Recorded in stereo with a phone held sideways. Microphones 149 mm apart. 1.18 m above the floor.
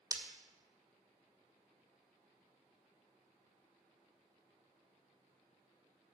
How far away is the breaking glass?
About 2.0 m.